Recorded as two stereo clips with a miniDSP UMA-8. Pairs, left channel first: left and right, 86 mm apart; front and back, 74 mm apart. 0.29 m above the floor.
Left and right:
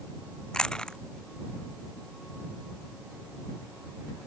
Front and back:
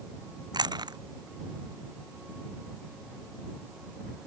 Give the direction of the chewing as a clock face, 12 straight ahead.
6 o'clock.